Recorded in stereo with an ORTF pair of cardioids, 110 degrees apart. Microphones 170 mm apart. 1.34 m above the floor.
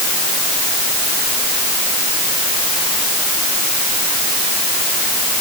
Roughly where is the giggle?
I don't hear a giggle.